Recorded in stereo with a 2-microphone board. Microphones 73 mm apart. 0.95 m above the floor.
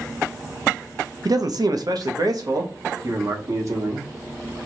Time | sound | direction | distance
1.2 | a man speaking | 60° right (ahead or behind) | 0.7 m